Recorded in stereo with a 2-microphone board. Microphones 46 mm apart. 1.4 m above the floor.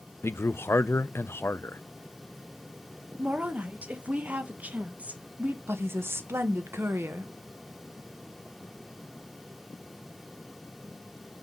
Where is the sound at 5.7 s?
65° right (ahead or behind), 1.1 m.